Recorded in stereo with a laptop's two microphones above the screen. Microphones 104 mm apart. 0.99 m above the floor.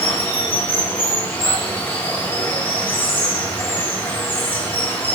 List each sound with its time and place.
0.0 s running water: 20° left (ahead or behind), 1.1 m